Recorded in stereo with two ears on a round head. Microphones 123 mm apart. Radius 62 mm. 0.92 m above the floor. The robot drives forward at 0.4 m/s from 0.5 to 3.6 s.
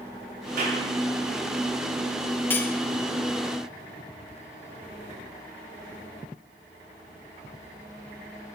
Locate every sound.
0.6 s a clap: 75° right (ahead or behind), 7.5 m
2.5 s cutlery clinking: 15° left (ahead or behind), 1.3 m